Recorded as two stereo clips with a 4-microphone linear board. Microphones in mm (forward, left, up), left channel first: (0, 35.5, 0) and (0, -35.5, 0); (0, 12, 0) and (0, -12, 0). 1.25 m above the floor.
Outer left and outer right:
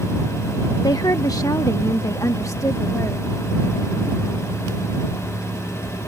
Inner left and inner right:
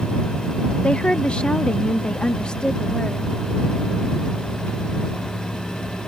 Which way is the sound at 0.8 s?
60° left (ahead or behind).